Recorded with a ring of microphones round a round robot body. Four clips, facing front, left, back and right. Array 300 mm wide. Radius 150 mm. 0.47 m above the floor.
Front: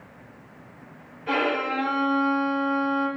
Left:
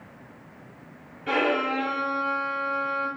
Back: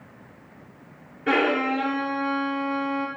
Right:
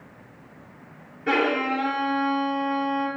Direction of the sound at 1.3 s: 160° right.